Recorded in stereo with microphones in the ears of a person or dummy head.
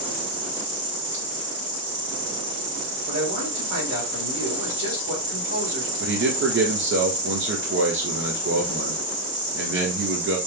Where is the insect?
70° right (ahead or behind), 2.5 m.